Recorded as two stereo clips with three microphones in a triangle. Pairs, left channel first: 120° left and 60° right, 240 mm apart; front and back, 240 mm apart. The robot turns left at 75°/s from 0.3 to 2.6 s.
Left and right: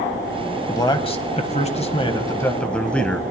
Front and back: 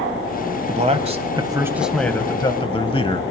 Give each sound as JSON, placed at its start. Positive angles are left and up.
{"t": 0.7, "sound": "a man speaking", "azimuth_deg": -175, "distance_m": 1.1}